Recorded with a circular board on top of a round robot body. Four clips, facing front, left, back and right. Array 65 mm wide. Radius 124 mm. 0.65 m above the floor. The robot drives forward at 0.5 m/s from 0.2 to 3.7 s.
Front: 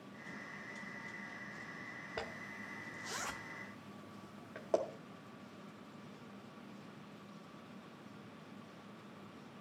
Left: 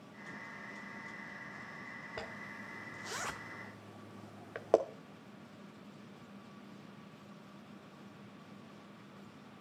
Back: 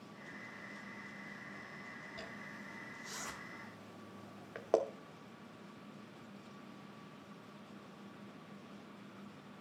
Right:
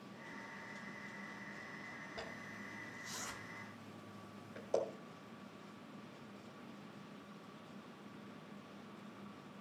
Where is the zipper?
35° left, 0.8 m; by 4.8 s 100° left, 0.5 m.